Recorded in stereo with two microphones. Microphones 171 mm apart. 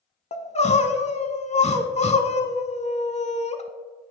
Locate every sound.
0.3 s crying: 40° left (ahead or behind), 0.5 m